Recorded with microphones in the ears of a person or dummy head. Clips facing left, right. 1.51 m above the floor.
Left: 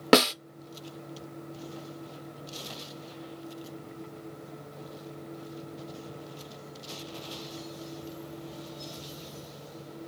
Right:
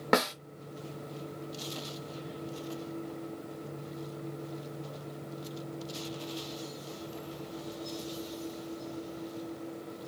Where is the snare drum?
45° left (ahead or behind), 0.7 m.